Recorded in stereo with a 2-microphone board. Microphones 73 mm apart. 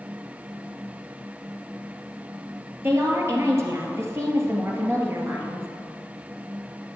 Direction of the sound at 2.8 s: 35° right (ahead or behind).